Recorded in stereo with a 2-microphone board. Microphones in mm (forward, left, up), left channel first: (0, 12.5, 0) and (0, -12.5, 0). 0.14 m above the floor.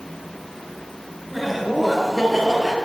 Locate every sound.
1.3 s laughter: 5° right (ahead or behind), 2 m; by 2.8 s 15° right (ahead or behind), 3.5 m